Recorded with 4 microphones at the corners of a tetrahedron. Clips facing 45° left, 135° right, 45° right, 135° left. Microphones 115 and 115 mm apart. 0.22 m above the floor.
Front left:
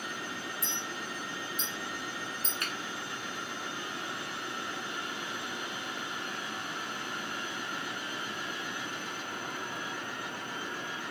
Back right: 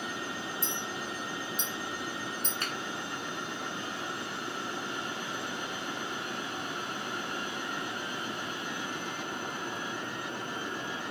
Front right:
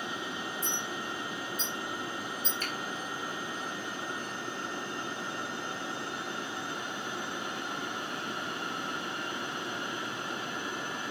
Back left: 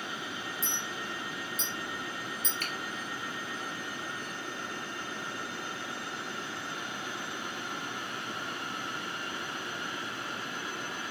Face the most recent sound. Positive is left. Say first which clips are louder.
# even, front right 1 dB
turn(degrees=160)